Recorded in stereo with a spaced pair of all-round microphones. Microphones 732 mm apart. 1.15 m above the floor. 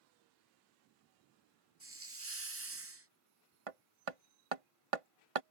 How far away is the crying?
No crying in this recording.